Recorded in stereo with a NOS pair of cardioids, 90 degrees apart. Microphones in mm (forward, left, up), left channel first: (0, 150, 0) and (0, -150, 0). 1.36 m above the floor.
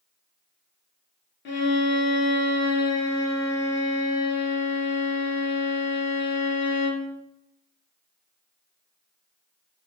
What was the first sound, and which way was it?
A violin, 40° left.